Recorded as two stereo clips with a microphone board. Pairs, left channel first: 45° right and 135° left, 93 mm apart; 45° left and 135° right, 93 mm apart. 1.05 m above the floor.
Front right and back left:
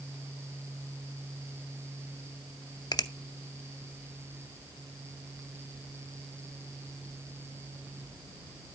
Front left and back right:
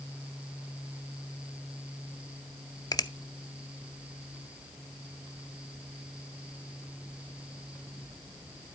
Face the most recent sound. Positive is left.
turn(degrees=0)